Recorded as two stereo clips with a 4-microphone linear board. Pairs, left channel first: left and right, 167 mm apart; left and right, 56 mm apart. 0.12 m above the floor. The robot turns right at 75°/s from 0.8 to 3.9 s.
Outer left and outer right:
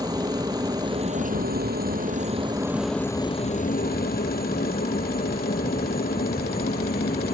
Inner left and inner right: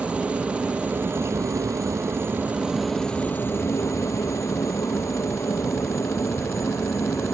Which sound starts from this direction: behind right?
A helicopter, at 0.0 s.